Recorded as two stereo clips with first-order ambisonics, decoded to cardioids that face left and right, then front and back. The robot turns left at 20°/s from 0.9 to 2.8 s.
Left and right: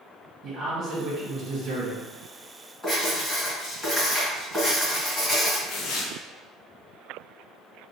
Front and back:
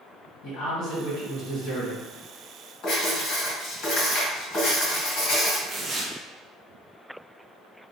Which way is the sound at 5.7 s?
110° left.